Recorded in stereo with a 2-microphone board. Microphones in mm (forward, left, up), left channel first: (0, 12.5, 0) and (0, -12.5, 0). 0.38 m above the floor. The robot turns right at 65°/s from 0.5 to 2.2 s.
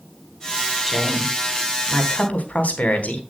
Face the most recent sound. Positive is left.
turn(degrees=75)